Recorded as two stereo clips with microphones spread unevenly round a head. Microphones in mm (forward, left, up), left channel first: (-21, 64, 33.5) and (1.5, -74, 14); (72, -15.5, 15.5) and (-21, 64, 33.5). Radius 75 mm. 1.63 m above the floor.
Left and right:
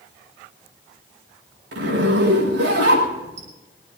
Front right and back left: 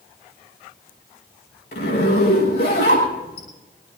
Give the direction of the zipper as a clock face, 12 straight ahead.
2 o'clock.